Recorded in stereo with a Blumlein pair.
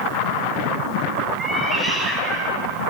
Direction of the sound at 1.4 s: 5° right.